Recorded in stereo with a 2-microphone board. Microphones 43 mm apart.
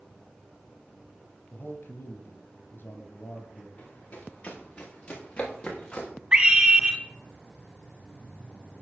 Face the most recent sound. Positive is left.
turn(degrees=-30)  # may be behind; listen again after turning